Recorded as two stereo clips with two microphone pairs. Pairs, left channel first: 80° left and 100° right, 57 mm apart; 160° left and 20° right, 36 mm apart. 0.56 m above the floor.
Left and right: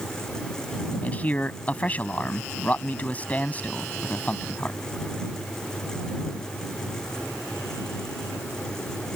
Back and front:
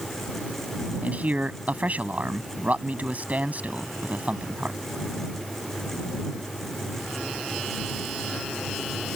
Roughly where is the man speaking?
Ahead.